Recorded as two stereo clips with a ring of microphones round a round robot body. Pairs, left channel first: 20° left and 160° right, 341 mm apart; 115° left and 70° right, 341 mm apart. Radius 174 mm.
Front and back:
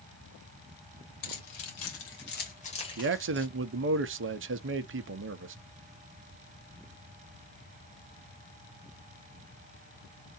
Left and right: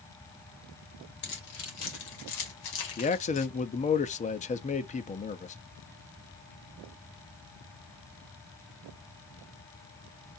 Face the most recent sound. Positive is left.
turn(degrees=170)